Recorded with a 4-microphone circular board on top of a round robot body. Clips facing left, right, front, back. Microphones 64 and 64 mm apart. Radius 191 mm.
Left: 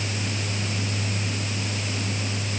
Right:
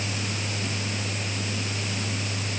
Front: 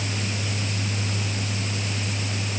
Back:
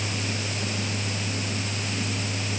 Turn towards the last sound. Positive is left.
No sound to turn to.